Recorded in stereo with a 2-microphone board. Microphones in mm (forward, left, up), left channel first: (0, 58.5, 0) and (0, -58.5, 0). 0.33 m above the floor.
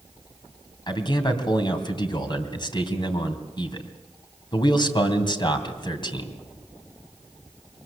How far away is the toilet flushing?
No toilet flushing in this recording.